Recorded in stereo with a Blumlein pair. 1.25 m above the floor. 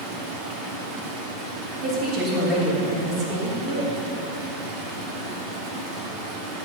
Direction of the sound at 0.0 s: 40° right.